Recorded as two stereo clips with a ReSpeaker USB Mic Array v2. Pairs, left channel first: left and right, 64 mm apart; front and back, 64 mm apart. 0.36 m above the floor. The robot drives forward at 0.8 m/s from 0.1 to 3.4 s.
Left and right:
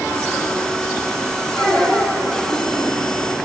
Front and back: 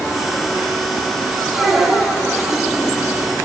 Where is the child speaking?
85° right, 3 m; by 2.1 s 90° right, 3 m.